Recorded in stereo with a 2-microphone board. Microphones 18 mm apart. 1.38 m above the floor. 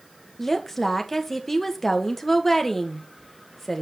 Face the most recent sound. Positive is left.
turn(degrees=15)  # may be behind; listen again after turning